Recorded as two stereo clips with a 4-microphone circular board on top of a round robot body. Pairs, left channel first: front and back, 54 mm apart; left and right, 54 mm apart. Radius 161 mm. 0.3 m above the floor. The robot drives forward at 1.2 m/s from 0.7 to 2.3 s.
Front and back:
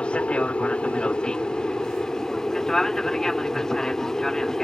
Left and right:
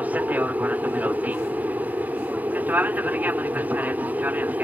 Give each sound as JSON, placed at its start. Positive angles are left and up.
{"t": 0.0, "sound": "an aircraft", "azimuth_deg": -55}